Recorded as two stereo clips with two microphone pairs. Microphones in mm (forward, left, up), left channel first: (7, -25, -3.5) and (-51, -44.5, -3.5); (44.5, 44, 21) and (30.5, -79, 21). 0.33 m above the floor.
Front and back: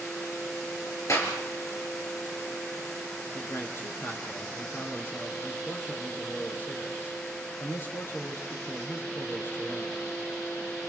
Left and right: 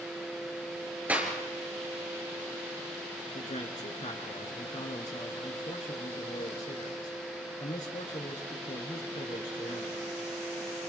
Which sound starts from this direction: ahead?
A clap, at 1.1 s.